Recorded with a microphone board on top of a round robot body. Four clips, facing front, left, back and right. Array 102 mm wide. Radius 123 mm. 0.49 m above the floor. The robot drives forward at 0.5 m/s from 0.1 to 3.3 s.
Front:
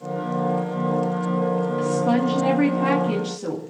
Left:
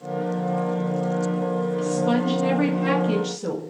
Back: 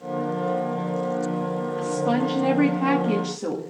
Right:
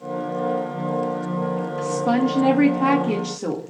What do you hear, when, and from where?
1.8 s a woman speaking: 75° right, 1.9 m; by 3.6 s 105° right, 1.9 m